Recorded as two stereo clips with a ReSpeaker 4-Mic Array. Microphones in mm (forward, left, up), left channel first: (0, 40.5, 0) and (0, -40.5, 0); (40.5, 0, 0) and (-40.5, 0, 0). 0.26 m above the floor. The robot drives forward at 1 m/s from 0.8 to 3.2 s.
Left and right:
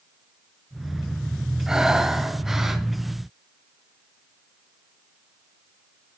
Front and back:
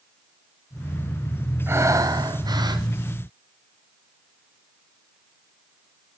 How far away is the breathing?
About 0.9 m.